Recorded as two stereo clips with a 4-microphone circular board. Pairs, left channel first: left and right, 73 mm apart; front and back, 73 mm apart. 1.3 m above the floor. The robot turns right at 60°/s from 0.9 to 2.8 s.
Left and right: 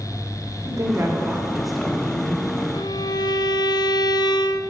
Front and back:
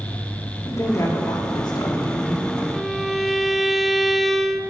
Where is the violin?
85° left, 0.5 m; by 4.6 s 90° left, 0.5 m.